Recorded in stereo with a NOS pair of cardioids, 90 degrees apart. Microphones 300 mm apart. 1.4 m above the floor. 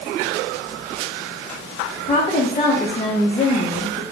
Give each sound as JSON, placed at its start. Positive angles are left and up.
{"t": 2.0, "sound": "a woman speaking", "azimuth_deg": 20, "distance_m": 0.5}